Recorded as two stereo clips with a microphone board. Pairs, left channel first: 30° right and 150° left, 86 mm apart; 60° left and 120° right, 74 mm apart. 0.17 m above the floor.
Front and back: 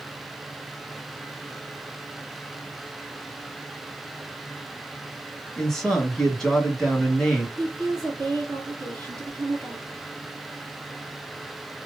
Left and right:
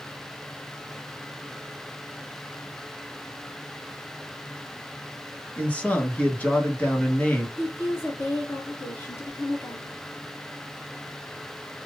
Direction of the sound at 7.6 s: 115° left.